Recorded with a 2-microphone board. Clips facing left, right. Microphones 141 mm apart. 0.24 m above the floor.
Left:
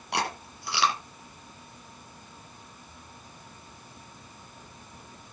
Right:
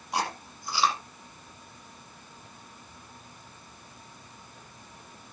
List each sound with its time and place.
0.1 s chewing: 75° left (ahead or behind), 5.5 m